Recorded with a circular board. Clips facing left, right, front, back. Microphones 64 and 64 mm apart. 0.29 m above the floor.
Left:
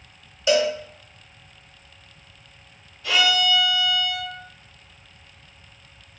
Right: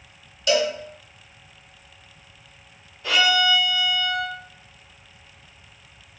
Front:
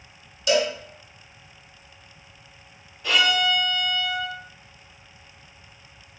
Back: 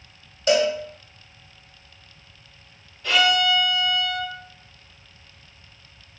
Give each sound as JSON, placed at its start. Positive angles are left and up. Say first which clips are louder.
{"t": 0.5, "sound": "a cowbell", "louder": "left 2 dB, back 3 dB", "azimuth_deg": 150, "distance_m": 0.8}
{"t": 3.0, "sound": "a violin", "louder": "right 1 dB, back 2 dB", "azimuth_deg": -85, "distance_m": 1.4}